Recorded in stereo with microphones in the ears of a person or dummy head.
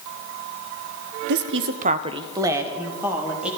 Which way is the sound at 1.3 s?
45° right (ahead or behind).